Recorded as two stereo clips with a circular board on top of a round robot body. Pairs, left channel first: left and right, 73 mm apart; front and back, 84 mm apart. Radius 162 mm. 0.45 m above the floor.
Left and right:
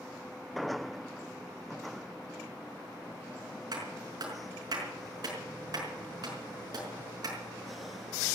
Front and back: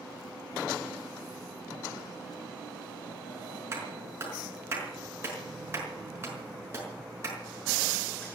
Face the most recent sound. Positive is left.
turn(degrees=-120)